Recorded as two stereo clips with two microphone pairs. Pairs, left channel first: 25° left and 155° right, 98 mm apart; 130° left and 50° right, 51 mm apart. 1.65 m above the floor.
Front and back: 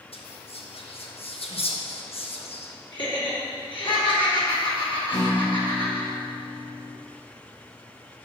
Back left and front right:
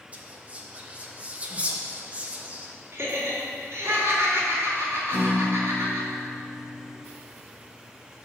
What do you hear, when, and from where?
0.1 s whispering: 15° left, 1.1 m
2.9 s laughter: 5° right, 3 m
5.1 s a guitar: 10° left, 2.5 m